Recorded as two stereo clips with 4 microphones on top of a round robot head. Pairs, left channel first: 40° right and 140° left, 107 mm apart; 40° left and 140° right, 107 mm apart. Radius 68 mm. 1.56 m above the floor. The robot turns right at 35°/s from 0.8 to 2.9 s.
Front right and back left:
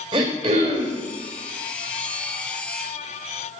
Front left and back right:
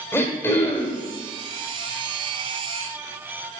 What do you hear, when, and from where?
0.1 s throat clearing: 105° left, 1.5 m; by 1.1 s 115° left, 1.5 m